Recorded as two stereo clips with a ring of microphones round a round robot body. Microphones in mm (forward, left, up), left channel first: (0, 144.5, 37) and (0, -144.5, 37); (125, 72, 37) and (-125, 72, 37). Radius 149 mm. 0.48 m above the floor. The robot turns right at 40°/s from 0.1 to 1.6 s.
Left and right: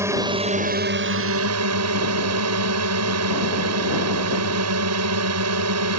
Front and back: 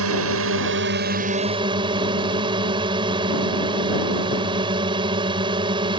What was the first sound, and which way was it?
A drone, 170° right.